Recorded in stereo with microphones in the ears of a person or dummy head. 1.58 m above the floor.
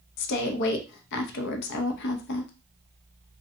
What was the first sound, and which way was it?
A woman speaking, 65° left (ahead or behind).